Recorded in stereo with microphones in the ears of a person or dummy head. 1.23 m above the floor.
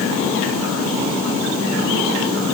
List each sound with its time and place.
Only background noise.